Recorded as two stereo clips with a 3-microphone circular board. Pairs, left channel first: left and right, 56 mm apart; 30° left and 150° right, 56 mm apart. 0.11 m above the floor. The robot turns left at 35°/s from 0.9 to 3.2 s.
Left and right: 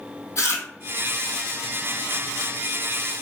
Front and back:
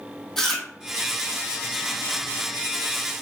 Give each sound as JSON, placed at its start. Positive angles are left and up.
{"t": 0.4, "sound": "chewing", "azimuth_deg": 110, "distance_m": 0.8}